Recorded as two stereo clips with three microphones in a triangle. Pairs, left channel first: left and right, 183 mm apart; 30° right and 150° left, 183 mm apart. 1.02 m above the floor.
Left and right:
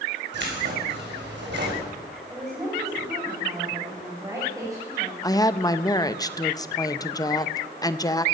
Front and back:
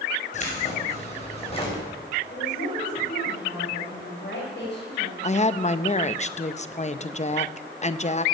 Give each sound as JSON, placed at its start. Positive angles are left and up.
{"t": 0.3, "sound": "keys jangling", "azimuth_deg": -80, "distance_m": 4.5}
{"t": 2.3, "sound": "a woman speaking", "azimuth_deg": -20, "distance_m": 4.5}
{"t": 5.2, "sound": "a woman speaking", "azimuth_deg": 20, "distance_m": 0.6}